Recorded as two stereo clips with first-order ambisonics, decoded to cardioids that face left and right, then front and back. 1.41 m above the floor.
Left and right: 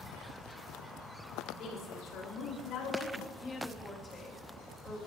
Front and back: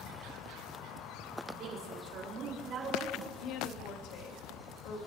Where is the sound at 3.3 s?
20° left, 2.5 m.